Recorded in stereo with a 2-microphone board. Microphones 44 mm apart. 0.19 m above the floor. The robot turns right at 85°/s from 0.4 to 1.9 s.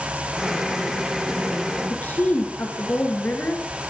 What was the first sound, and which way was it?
A woman speaking, 40° left (ahead or behind).